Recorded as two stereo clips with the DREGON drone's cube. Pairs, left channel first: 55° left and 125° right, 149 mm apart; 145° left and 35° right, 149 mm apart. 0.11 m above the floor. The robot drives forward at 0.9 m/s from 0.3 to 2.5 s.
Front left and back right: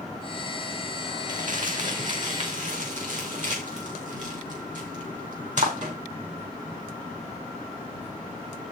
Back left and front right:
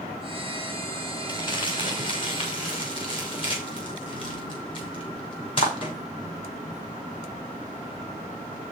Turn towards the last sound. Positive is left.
turn(degrees=-160)